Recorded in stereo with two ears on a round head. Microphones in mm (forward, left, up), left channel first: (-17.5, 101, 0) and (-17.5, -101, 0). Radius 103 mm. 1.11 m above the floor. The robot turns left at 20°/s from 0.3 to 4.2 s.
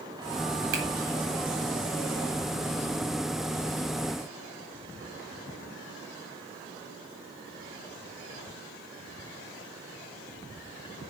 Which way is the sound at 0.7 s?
80° right.